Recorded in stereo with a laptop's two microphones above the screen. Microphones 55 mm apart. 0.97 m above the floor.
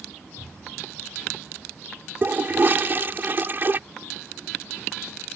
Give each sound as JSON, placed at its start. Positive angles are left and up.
{"t": 2.2, "sound": "a toilet flushing", "side_deg": -40}